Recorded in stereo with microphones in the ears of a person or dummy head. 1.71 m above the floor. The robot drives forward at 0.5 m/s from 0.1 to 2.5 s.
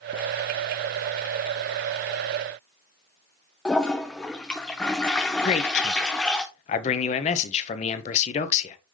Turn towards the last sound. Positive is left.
turn(degrees=35)  # may be behind; listen again after turning